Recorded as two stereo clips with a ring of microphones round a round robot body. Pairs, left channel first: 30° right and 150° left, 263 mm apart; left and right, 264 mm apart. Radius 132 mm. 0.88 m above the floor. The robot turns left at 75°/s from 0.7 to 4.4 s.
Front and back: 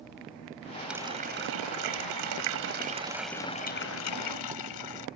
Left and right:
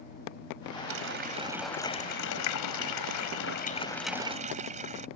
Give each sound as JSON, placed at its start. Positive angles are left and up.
{"t": 0.9, "sound": "a running tap", "azimuth_deg": -120}